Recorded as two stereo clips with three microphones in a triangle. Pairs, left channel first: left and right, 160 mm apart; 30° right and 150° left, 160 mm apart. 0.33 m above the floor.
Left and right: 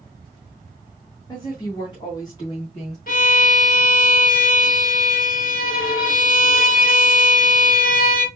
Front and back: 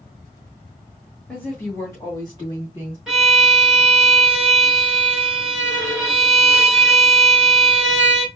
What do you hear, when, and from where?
1.3 s a woman speaking: 50° left, 1.5 m; by 3.0 s 30° left, 3 m
3.1 s a violin: 65° left, 1.8 m